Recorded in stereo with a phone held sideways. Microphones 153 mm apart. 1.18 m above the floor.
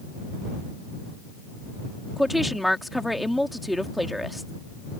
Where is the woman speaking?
Centre (ahead or behind).